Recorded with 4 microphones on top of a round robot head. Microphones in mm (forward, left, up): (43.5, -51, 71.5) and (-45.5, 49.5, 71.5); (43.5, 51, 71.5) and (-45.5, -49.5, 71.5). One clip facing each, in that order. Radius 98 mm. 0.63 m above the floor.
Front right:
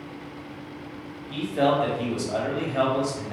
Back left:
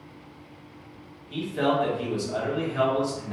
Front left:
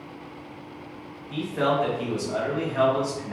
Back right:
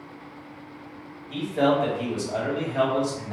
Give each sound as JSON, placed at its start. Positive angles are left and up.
{"t": 1.3, "sound": "a man speaking", "azimuth_deg": -75, "distance_m": 1.1}